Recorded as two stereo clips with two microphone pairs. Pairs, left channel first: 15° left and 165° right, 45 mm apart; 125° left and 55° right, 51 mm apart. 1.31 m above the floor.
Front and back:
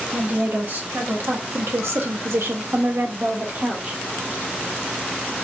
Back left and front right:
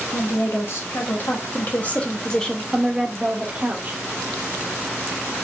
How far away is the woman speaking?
About 1.6 m.